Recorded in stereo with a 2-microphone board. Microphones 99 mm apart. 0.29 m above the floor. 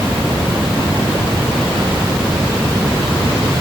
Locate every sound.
Only background noise.